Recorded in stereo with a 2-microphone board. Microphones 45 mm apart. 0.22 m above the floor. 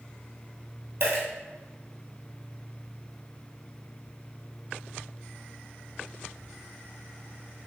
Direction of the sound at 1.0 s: 50° right (ahead or behind).